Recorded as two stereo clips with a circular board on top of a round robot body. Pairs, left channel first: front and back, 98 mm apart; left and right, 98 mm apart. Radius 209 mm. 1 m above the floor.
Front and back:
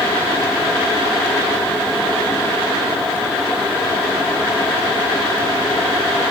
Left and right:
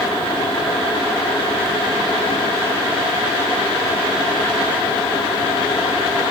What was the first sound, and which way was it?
Only background noise.